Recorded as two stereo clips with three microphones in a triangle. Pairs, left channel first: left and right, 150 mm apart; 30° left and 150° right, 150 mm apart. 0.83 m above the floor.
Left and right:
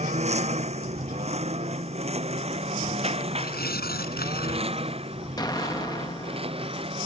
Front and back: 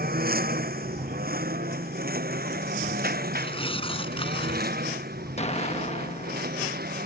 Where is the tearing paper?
85° left.